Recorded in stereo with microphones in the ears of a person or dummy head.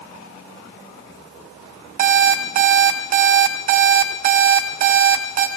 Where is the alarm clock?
40° right (ahead or behind), 1.5 m.